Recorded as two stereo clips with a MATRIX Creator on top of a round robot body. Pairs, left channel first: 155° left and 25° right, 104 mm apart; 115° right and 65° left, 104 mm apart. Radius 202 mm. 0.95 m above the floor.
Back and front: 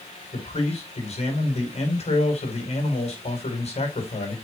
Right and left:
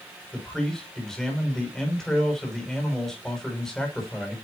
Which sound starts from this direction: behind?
A man speaking, at 0.3 s.